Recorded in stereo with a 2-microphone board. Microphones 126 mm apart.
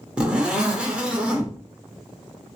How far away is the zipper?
About 0.7 m.